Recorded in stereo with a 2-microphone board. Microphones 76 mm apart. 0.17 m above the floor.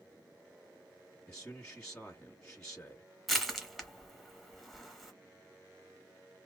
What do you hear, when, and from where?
1.3 s a man speaking: 5° left (ahead or behind), 1.2 m
3.3 s crushing: 5° right (ahead or behind), 1.4 m